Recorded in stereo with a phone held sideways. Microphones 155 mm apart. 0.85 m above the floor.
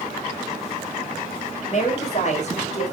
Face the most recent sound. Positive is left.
turn(degrees=50)  # may be behind; listen again after turning